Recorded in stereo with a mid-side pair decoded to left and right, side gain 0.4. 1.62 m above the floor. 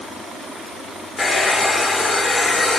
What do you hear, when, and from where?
1.2 s a hair dryer: 35° left, 4 m